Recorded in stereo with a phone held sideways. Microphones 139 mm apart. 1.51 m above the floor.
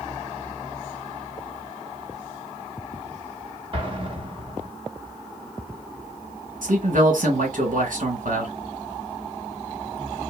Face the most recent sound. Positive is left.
turn(degrees=-75)  # may be behind; listen again after turning